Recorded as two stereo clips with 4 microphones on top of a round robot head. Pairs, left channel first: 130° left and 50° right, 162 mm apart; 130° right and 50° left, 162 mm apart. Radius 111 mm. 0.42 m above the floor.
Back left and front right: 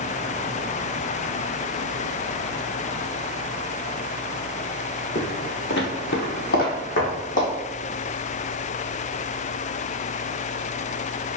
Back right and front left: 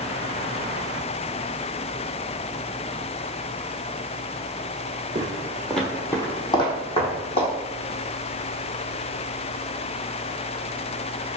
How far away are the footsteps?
About 0.7 m.